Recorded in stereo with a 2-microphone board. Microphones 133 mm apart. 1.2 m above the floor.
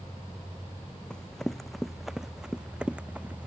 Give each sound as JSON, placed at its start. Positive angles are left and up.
{"t": 1.1, "sound": "running footsteps", "side_deg": 5}